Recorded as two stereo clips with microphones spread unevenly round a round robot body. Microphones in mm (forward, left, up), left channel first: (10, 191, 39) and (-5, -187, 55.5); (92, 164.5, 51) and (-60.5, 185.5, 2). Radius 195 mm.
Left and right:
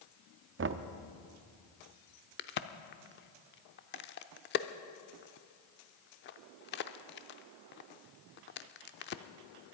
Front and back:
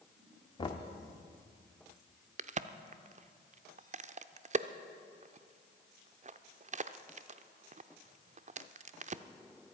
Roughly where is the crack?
Behind left.